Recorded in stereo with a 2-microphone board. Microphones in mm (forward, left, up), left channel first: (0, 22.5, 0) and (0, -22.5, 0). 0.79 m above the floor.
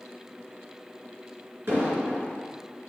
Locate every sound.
1.7 s an explosion: 60° right (ahead or behind), 2.5 m